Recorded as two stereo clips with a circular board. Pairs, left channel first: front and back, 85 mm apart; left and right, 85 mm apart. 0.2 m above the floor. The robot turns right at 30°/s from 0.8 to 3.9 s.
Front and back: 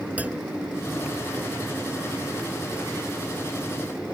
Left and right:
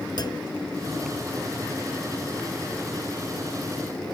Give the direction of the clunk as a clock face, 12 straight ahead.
8 o'clock.